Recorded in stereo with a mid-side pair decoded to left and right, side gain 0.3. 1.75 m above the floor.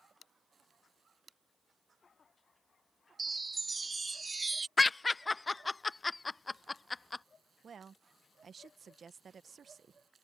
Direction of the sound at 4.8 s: 30° left.